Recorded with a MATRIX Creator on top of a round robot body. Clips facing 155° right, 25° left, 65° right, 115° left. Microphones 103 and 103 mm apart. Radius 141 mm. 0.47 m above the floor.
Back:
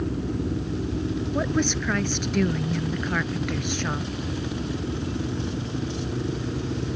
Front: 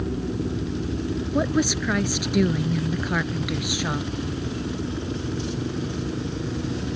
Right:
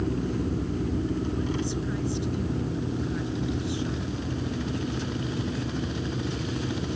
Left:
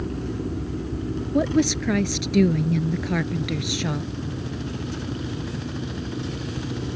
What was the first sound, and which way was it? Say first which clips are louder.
A woman speaking: front 3 dB, left 8 dB; 105° left.